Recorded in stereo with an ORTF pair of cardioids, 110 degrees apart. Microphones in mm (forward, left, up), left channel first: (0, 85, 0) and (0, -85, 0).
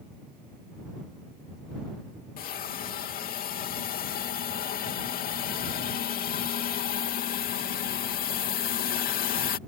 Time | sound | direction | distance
2.4 | a hiss | 60° left | ?